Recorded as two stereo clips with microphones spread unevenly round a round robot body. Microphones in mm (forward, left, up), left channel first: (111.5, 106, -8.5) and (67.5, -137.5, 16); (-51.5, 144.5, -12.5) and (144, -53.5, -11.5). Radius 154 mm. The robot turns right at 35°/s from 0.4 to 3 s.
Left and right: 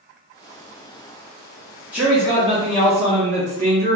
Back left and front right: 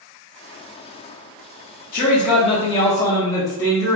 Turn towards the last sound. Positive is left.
turn(degrees=-155)